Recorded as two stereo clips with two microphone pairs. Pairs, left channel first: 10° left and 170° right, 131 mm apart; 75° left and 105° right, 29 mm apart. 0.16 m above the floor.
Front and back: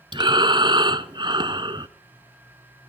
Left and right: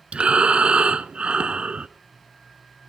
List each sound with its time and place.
0.1 s breathing: 135° right, 1.1 m